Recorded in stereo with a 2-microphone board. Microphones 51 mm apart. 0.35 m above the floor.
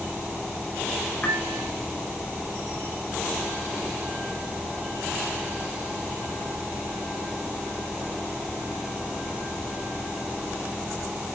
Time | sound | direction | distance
1.2 | a piano | 25° left (ahead or behind) | 0.8 m